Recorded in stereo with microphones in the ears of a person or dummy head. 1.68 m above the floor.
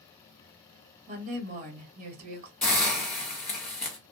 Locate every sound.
1.1 s a woman speaking: 45° right (ahead or behind), 1.0 m
2.6 s a hiss: 10° left (ahead or behind), 0.9 m